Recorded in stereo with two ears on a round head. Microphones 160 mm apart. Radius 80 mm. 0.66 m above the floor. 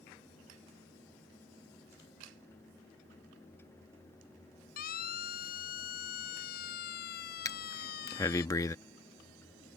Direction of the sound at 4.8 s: 50° left (ahead or behind).